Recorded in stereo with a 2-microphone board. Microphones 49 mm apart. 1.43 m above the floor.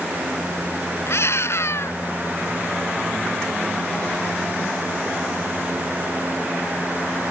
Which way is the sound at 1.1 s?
60° left (ahead or behind).